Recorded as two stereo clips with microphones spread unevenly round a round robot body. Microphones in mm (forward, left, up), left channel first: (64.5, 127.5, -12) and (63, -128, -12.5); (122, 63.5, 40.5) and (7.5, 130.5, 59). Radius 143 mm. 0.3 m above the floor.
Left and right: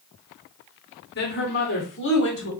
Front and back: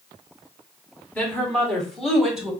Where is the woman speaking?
45° left, 3 m; by 2.5 s 60° left, 2.5 m.